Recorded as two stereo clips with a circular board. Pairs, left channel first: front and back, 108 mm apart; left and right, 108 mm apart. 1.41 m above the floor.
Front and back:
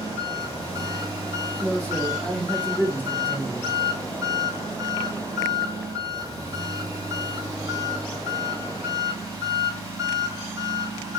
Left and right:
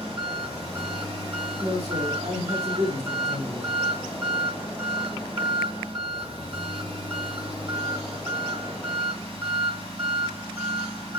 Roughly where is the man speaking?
Right.